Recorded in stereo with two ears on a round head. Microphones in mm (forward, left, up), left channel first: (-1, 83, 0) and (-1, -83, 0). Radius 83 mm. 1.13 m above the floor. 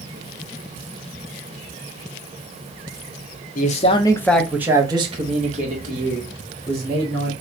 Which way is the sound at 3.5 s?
45° left (ahead or behind).